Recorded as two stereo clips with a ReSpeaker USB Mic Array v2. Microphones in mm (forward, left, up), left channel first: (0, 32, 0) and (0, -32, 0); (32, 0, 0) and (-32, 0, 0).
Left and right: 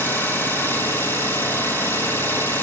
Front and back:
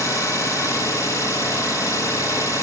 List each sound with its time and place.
0.0 s an engine running: 35° left, 4.5 m